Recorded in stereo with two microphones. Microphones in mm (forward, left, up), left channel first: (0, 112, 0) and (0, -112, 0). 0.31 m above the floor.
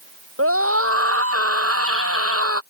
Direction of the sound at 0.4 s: 80° right.